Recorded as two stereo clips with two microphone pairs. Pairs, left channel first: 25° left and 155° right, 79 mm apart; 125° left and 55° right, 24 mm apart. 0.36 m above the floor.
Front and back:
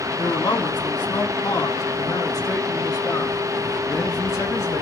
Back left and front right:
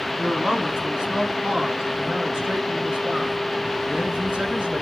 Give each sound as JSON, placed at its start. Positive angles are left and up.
{"t": 0.2, "sound": "a man speaking", "azimuth_deg": 10, "distance_m": 3.5}